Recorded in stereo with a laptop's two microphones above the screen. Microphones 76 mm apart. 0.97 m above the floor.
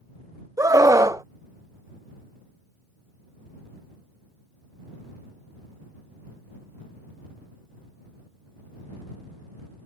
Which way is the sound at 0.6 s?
45° right (ahead or behind).